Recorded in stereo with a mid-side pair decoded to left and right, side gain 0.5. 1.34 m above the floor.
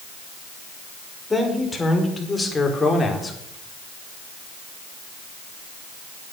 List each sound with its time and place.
1.3 s a man speaking: 15° left, 5.5 m; by 3.4 s 20° left, 4.5 m